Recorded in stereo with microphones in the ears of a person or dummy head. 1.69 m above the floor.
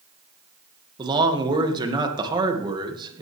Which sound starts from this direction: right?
A man speaking, at 1.0 s.